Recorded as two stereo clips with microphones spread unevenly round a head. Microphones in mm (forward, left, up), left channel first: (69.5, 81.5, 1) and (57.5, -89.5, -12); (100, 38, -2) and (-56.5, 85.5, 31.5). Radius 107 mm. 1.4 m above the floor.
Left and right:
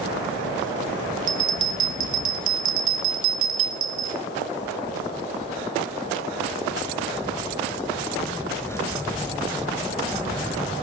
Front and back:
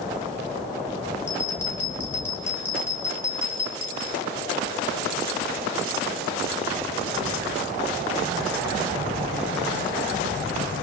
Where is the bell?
100° right, 1.5 m.